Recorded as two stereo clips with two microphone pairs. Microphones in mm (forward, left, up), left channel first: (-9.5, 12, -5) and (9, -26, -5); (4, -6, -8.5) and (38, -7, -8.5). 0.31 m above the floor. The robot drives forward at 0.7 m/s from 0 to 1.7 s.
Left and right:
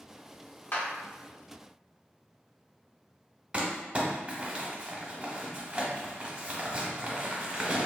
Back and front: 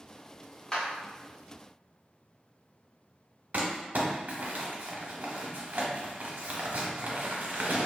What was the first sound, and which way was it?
A clap, 120° left.